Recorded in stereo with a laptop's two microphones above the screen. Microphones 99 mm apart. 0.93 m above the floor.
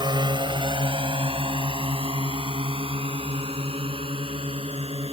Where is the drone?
50° right (ahead or behind); by 5.1 s 75° right (ahead or behind).